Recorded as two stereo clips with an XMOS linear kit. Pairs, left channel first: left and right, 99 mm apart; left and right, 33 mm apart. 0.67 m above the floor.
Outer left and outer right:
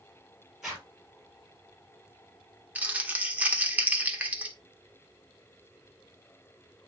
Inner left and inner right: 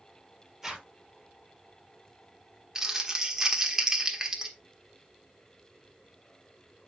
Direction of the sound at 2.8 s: 15° right (ahead or behind).